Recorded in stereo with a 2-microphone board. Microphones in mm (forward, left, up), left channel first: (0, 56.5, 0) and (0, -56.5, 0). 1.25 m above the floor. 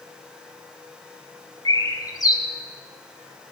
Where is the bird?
35° left (ahead or behind), 1.7 m.